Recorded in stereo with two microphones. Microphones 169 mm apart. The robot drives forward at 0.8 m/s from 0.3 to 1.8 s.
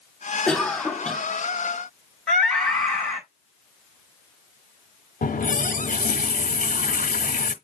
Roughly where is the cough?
Centre.